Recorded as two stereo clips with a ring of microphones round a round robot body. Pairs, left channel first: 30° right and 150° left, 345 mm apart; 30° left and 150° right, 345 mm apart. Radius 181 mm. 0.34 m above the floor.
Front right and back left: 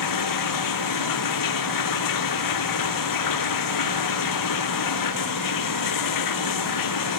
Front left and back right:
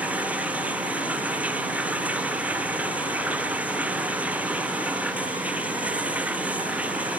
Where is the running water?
65° right.